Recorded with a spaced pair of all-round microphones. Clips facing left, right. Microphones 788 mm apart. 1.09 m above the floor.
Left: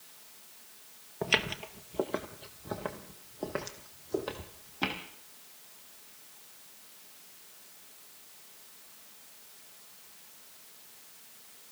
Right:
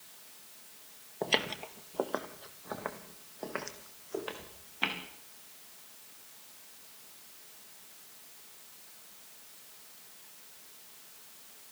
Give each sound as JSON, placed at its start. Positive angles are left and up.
{"t": 1.2, "sound": "footsteps", "side_deg": 40, "distance_m": 1.4}